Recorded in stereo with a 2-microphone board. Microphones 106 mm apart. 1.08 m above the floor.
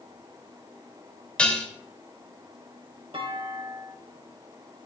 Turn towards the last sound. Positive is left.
turn(degrees=-55)  # may be behind; listen again after turning